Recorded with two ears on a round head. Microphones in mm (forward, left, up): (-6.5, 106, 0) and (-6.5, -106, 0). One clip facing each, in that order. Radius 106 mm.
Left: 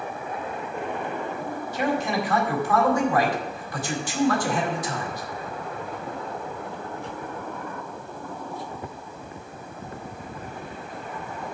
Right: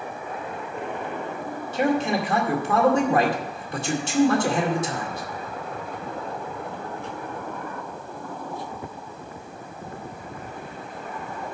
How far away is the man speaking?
About 2 m.